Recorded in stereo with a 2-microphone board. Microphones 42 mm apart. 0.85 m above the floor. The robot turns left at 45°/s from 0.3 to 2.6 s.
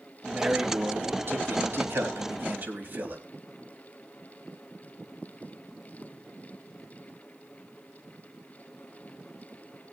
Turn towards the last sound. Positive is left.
turn(degrees=-125)